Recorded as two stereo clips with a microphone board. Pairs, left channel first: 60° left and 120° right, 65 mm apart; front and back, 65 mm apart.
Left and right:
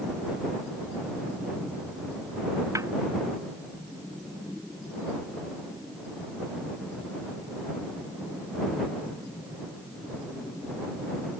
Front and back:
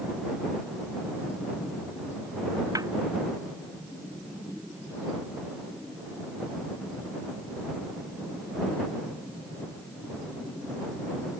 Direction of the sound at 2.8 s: 155° right.